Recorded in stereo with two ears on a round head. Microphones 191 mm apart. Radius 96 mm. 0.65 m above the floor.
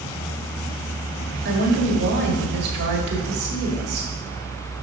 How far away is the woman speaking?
About 1.7 m.